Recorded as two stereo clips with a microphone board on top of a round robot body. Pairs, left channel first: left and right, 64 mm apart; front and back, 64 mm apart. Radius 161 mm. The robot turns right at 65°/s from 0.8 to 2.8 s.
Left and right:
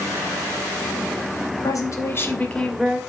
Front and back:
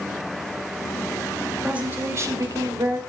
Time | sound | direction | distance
1.6 | a woman speaking | 105° left | 2.5 m